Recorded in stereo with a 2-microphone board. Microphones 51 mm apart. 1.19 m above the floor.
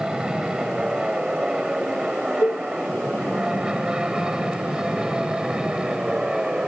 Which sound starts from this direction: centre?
An aircraft, at 0.0 s.